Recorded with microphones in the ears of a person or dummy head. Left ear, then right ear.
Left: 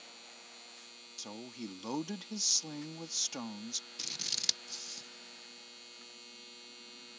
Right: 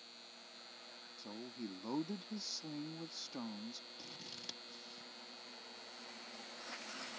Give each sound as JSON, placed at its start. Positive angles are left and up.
{"t": 0.0, "sound": "a machine running", "side_deg": 45}
{"t": 1.2, "sound": "a woman speaking", "side_deg": 55}
{"t": 4.0, "sound": "scissors", "side_deg": 50}